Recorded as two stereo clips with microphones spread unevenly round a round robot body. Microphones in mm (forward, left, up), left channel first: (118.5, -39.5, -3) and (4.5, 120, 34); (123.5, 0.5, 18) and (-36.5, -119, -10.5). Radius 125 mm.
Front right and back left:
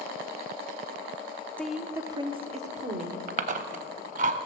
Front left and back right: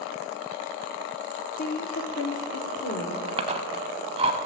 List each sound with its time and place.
1.6 s a woman speaking: 10° left, 1.1 m; by 3.2 s 75° left, 2 m
3.3 s chewing: 150° left, 0.5 m